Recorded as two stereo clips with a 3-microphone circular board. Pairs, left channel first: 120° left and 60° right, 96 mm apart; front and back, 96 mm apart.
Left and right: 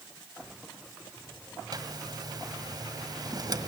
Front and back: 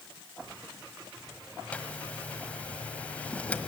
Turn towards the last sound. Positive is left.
turn(degrees=-70)